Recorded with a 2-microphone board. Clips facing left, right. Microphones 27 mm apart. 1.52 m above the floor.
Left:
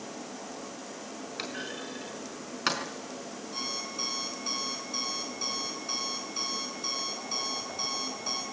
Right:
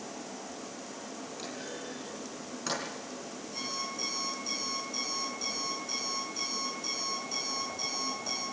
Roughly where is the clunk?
Left.